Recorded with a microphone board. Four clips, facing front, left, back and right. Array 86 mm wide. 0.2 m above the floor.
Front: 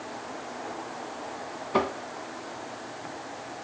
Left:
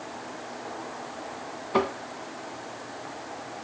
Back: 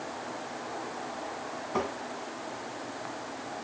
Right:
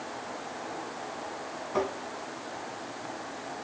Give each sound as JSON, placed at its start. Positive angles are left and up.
{"t": 1.7, "sound": "tapping", "azimuth_deg": 50, "distance_m": 0.8}